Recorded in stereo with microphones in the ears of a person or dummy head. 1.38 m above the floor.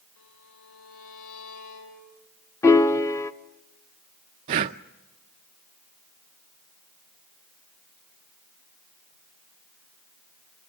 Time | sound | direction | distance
0.2 | a violin | 75° left (ahead or behind) | 7.5 m
2.6 | a piano | 15° left (ahead or behind) | 0.8 m
4.5 | breathing | 25° right (ahead or behind) | 0.5 m